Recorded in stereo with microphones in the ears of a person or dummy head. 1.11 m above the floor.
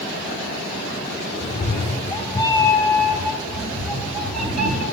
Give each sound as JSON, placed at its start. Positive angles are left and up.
{"t": 1.4, "sound": "a cat meowing", "side_deg": 40, "distance_m": 1.2}